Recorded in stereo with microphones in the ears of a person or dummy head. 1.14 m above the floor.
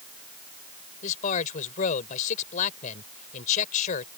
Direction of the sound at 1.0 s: 45° left (ahead or behind).